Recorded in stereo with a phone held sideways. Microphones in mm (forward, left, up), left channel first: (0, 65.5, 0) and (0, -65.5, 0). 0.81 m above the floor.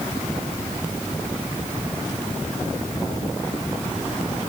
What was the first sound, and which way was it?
Only background noise.